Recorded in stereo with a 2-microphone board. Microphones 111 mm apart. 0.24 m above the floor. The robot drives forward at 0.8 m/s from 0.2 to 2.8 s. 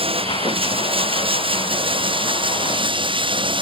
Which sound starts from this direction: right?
Running water, at 0.0 s.